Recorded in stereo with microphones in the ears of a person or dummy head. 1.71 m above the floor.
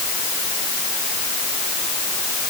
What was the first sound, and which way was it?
Only background noise.